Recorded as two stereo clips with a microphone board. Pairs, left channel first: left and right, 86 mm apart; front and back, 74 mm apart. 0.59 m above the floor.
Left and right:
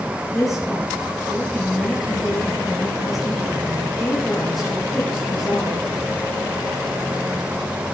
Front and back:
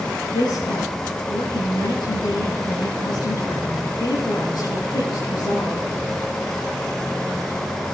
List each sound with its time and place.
0.3 s a woman speaking: straight ahead, 9 m